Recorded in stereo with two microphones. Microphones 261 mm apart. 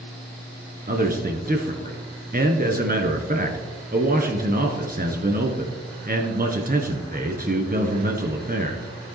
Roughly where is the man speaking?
Right.